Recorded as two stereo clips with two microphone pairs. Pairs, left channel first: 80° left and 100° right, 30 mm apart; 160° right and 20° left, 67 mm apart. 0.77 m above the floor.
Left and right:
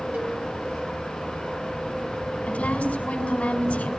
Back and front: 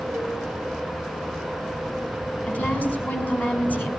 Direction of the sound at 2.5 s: 130° left.